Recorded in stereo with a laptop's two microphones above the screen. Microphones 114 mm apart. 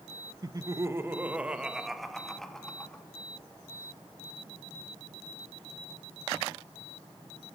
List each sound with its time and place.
0.4 s laughter: 35° right (ahead or behind), 1.0 m; by 3.0 s 10° left (ahead or behind), 2 m